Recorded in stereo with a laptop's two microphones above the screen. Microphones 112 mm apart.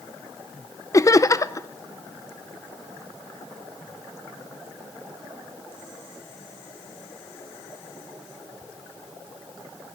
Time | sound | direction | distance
0.9 | laughter | 30° left (ahead or behind) | 0.6 m